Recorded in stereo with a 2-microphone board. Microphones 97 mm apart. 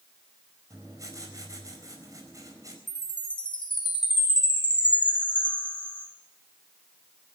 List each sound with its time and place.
0.7 s writing: 40° right (ahead or behind), 4.5 m
2.9 s a chime: 60° left (ahead or behind), 3.5 m